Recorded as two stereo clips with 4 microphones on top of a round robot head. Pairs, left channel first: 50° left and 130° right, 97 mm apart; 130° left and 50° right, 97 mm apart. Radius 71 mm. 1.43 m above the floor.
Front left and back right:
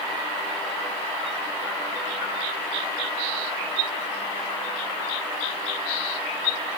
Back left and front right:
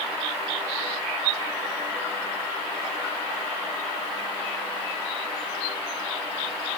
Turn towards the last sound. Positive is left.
No sound to turn to.